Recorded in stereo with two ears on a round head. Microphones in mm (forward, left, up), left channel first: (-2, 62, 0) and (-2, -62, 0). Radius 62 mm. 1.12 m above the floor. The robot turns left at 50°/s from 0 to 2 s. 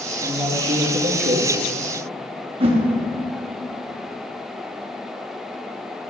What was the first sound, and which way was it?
A man speaking, 10° right.